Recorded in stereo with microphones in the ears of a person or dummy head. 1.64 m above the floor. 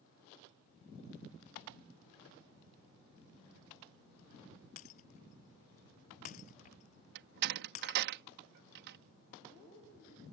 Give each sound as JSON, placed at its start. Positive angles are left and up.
{"t": 4.8, "sound": "breaking glass", "side_deg": 40}
{"t": 7.2, "sound": "a door slam", "side_deg": -55}